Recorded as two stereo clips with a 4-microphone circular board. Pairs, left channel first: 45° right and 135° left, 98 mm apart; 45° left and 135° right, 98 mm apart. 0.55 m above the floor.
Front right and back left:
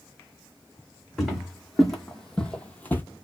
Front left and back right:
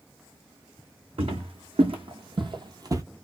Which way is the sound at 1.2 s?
135° right.